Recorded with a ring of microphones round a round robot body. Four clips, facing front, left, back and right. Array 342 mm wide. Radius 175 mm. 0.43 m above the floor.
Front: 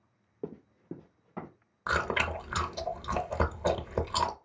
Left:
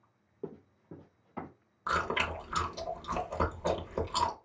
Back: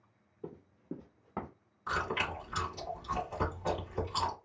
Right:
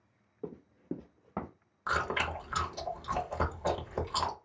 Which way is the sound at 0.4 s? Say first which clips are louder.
Right 3 dB, front 4 dB; straight ahead.